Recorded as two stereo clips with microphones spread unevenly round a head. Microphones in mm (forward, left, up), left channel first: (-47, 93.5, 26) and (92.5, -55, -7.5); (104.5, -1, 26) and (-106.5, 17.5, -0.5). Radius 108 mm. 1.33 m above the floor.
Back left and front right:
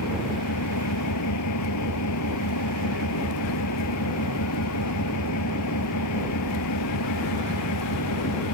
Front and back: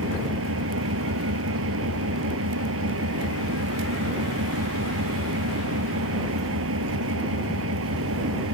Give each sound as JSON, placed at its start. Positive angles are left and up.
{"t": 0.0, "sound": "an engine running", "azimuth_deg": 145}